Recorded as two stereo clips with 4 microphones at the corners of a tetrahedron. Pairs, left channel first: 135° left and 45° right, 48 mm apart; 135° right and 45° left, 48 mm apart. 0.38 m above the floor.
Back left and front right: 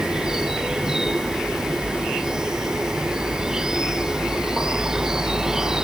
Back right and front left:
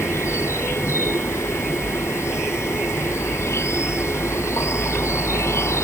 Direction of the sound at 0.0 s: 120° right.